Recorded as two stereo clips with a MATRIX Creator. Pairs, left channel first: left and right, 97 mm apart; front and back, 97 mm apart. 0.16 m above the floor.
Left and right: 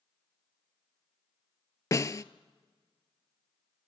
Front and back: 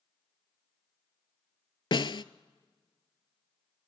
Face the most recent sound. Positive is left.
turn(degrees=35)